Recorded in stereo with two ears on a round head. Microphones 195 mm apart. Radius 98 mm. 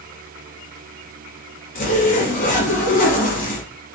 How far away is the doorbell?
I don't hear a doorbell.